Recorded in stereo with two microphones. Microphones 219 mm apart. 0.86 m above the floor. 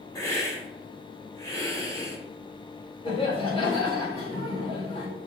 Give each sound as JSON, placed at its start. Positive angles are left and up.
{"t": 0.1, "sound": "a hiss", "side_deg": 15, "distance_m": 2.5}
{"t": 3.0, "sound": "laughter", "side_deg": 25, "distance_m": 3.0}